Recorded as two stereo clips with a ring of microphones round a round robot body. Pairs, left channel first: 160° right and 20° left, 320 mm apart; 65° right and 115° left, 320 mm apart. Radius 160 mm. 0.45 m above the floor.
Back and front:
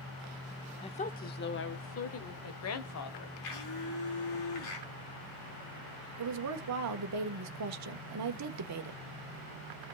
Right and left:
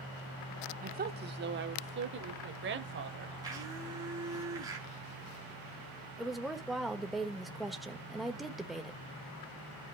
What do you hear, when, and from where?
0.8 s a woman speaking: 145° left, 0.8 m; by 3.3 s 165° left, 2 m
3.4 s a blender: 170° right, 5 m
6.2 s a woman speaking: 25° left, 1.5 m